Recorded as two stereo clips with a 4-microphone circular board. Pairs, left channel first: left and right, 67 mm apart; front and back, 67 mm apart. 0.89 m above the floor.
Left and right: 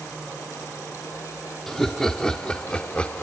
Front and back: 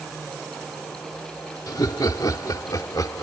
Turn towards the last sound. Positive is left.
turn(degrees=20)